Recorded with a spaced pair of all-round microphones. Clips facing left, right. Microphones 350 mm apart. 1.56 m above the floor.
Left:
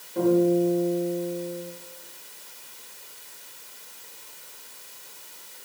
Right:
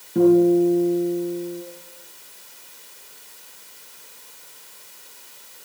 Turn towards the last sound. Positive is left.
turn(degrees=-70)  # may be behind; listen again after turning